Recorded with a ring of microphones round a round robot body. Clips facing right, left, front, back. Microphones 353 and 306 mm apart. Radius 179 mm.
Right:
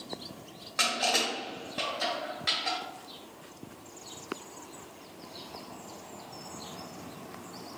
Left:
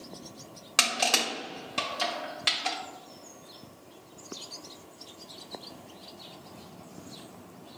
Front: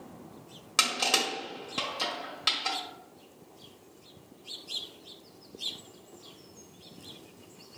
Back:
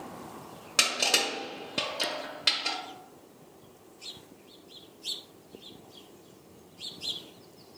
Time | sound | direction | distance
0.8 | crushing | 75° left | 1.7 m